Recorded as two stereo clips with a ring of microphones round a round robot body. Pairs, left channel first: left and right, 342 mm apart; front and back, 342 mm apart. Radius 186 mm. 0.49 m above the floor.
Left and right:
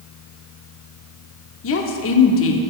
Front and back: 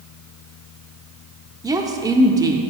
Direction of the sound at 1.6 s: 105° left.